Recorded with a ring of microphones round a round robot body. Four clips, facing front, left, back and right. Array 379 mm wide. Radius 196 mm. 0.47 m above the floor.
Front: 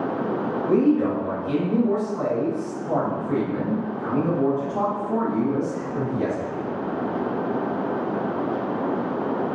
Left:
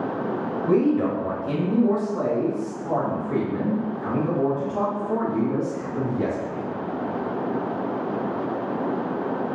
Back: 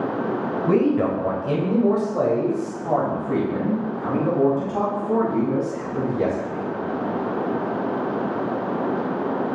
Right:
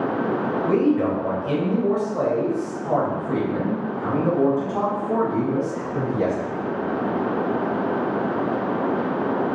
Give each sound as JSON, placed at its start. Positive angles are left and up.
{"t": 0.7, "sound": "a man speaking", "azimuth_deg": -175, "distance_m": 2.0}